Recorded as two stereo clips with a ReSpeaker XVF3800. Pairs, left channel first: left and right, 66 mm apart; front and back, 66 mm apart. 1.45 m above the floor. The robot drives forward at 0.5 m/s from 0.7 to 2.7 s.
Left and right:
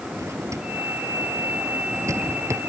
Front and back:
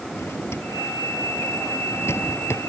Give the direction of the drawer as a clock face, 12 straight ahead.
2 o'clock.